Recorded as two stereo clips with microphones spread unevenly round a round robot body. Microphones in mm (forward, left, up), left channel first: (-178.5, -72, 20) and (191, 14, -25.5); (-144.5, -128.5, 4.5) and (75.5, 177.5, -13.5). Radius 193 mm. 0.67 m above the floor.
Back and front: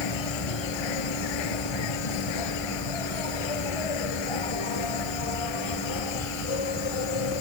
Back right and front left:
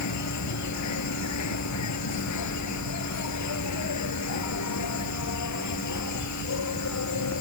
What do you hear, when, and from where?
0.0 s an insect: 165° right